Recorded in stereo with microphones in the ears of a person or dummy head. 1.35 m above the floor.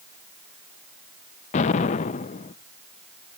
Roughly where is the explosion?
Left.